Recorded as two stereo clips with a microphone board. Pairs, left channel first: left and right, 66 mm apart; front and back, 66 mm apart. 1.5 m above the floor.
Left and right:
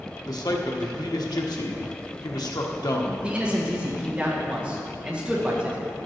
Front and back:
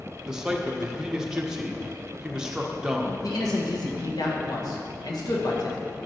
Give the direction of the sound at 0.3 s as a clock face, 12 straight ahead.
9 o'clock.